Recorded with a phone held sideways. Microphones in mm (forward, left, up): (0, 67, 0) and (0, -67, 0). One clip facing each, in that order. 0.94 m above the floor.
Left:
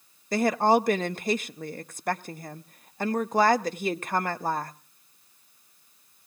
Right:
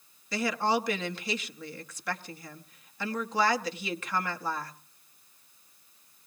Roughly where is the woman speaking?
Left.